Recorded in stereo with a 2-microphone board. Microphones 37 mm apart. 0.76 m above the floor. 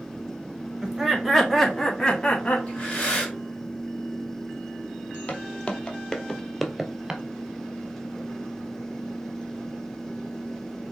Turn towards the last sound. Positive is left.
turn(degrees=-20)  # may be behind; listen again after turning